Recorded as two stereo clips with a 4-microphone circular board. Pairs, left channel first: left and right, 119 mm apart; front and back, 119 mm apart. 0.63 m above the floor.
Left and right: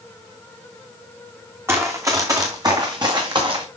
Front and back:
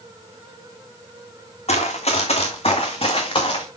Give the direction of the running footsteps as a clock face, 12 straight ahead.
1 o'clock.